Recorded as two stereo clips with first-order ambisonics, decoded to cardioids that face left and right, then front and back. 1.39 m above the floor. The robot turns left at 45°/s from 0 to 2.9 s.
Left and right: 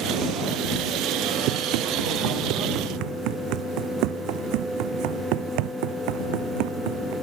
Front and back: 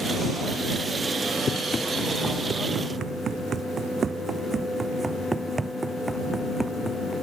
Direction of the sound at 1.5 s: 70° right.